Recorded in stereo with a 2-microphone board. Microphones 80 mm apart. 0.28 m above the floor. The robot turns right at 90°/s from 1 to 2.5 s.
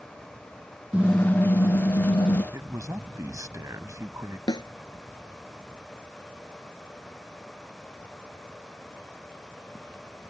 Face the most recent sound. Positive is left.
turn(degrees=60)  # may be behind; listen again after turning